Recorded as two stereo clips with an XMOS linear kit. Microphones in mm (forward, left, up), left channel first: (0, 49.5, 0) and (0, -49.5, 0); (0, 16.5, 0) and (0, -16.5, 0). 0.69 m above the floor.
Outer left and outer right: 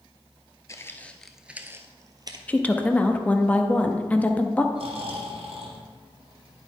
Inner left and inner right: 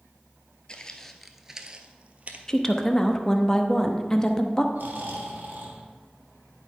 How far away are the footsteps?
About 0.7 m.